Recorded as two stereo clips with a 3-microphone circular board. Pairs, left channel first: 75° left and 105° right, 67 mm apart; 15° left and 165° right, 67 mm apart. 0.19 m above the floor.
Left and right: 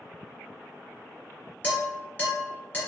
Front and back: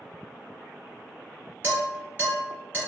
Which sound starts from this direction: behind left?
Dishes clattering, at 1.6 s.